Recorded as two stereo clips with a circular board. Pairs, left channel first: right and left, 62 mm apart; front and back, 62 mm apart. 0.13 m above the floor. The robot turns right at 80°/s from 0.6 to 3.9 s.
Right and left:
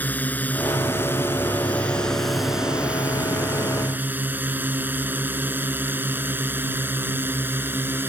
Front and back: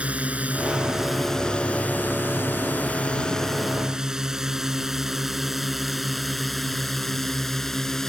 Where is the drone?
125° right; by 8.1 s 80° left.